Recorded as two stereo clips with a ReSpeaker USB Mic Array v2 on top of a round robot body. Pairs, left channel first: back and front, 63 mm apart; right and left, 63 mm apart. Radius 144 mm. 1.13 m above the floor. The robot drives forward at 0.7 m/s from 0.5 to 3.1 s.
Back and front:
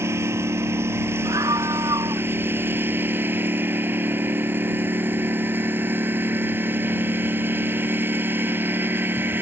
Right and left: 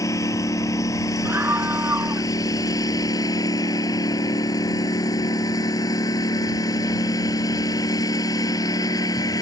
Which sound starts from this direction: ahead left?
A scream, at 1.2 s.